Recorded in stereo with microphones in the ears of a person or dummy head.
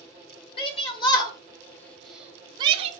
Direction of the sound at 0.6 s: 35° left (ahead or behind).